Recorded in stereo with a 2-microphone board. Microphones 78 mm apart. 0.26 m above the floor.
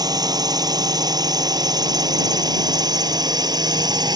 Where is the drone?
55° right (ahead or behind); by 4.2 s 60° right (ahead or behind).